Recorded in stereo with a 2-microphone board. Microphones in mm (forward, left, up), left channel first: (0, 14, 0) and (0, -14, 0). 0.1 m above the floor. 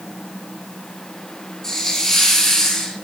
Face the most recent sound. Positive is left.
turn(degrees=20)  # may be behind; listen again after turning